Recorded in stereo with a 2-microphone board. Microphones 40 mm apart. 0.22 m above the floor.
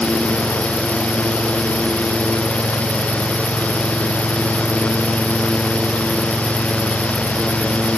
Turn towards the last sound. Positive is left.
No sound to turn to.